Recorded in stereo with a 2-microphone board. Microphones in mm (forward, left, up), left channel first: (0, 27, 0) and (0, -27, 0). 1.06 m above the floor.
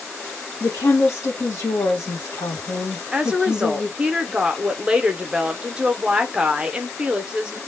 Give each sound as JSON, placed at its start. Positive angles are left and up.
{"t": 0.6, "sound": "a woman speaking", "side_deg": 70, "distance_m": 1.0}
{"t": 3.1, "sound": "a woman speaking", "side_deg": -15, "distance_m": 0.6}